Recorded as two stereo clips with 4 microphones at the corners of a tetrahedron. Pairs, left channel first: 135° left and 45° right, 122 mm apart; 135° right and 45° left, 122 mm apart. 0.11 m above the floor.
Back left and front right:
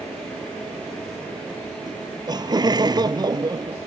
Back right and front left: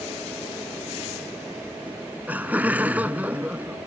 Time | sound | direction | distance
1.9 | laughter | 25° right | ?